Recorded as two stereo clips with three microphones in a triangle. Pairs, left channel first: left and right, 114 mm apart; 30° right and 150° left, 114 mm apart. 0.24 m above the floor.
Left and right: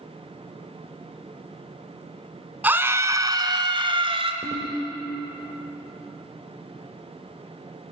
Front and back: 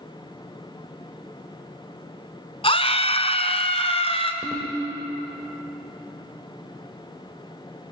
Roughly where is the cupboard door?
No cupboard door in this recording.